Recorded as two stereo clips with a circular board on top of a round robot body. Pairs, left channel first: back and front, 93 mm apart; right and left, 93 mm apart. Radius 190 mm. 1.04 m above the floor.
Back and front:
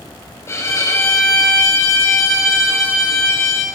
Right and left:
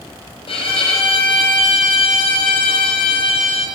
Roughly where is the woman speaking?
No woman speaking in this recording.